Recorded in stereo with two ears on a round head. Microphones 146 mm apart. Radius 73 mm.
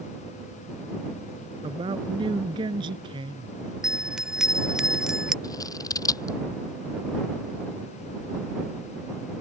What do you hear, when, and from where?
1.6 s a woman speaking: 30° right (ahead or behind)
3.8 s a bell: 5° right (ahead or behind)
5.4 s scissors: 25° left (ahead or behind)